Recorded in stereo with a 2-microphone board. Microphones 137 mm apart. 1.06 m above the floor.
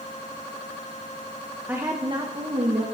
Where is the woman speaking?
15° right (ahead or behind), 1.0 m; by 2.8 s 60° right (ahead or behind), 1.9 m.